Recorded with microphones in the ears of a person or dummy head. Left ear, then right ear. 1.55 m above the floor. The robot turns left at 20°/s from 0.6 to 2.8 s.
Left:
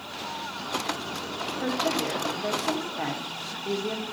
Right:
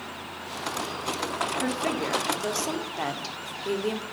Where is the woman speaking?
70° right (ahead or behind), 1.8 m; by 4.0 s 85° right, 1.8 m.